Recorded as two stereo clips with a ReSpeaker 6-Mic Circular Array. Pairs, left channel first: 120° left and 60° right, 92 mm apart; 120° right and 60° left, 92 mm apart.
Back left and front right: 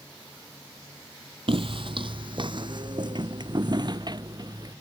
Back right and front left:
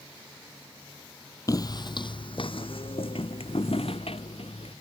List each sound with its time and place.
1.5 s footsteps: 70° right; by 4.8 s 110° right